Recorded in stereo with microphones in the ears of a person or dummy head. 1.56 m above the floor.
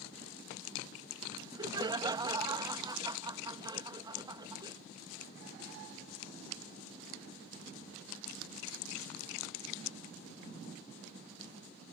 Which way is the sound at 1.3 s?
25° right (ahead or behind).